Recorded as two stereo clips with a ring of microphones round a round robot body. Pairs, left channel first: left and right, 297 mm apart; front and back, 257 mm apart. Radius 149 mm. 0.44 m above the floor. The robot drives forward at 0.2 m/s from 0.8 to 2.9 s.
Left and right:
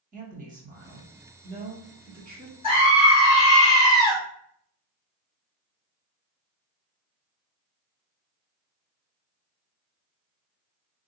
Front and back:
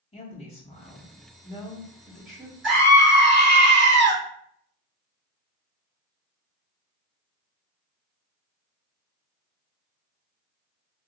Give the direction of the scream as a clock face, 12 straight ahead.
7 o'clock.